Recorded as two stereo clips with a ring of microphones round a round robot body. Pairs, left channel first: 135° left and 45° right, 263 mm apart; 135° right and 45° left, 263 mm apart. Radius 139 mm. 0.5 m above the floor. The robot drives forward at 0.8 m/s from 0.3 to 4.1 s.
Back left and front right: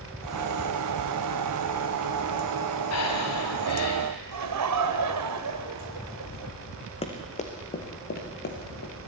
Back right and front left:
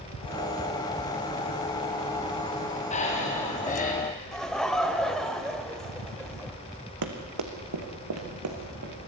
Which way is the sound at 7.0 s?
65° left.